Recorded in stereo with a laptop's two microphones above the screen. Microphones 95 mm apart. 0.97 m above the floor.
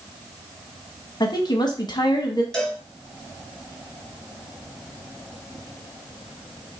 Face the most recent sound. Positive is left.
turn(degrees=5)  # may be behind; listen again after turning